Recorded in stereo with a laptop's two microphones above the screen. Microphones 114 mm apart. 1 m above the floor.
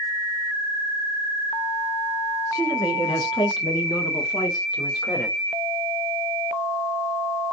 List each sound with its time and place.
2.5 s a man speaking: 25° left (ahead or behind), 0.9 m; by 5.4 s 35° left (ahead or behind), 2 m